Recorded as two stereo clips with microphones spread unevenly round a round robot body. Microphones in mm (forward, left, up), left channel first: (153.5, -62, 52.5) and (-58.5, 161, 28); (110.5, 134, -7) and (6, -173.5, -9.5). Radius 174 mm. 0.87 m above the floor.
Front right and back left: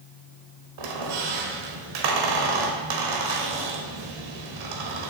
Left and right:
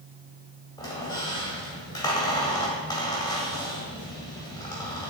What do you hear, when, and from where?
0.8 s a squeak: 150° left, 1.6 m